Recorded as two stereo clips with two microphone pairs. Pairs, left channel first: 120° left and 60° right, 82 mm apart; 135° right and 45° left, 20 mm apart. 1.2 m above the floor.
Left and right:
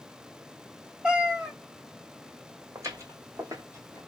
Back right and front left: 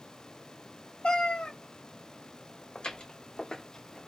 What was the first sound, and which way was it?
A cat meowing, 145° right.